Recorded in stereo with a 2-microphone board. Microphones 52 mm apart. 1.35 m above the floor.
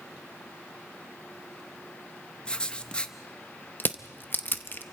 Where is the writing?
20° left (ahead or behind), 0.7 m.